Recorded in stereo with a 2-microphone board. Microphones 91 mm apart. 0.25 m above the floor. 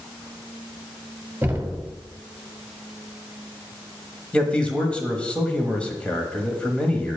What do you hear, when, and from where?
1.4 s knocking: 20° right (ahead or behind), 1.3 m
4.3 s a man speaking: 15° left (ahead or behind), 1.1 m